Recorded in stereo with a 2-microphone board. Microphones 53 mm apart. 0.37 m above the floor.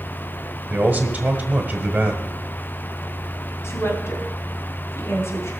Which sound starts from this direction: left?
A woman speaking, at 3.6 s.